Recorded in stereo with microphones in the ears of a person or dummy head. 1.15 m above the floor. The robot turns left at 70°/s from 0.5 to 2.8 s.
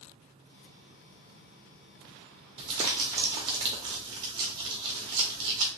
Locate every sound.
2.6 s crumpling: 25° right (ahead or behind), 0.7 m; by 5.7 s 20° right (ahead or behind), 0.7 m